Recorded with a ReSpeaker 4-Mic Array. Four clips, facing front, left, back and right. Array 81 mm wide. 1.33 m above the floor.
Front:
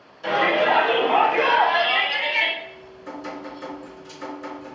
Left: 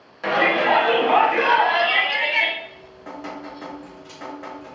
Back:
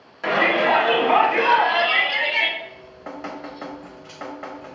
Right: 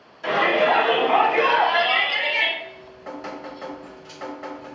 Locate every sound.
0.2 s a shout: 140° left, 1.0 m; by 2.5 s 125° left, 2 m
2.6 s dripping: 175° left, 1.0 m